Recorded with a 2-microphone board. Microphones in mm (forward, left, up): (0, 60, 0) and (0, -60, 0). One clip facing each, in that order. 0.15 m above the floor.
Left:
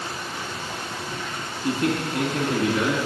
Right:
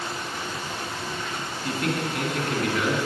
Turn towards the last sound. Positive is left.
turn(degrees=30)  # may be behind; listen again after turning